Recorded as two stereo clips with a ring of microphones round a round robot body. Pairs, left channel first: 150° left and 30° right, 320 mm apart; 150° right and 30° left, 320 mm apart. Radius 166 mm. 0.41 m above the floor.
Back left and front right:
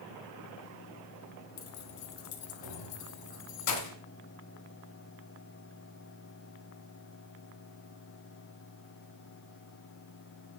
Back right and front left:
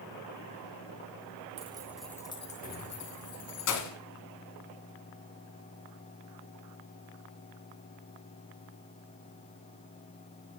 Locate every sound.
1.6 s keys jangling: 100° left, 1.5 m; by 4.0 s 175° left, 2.5 m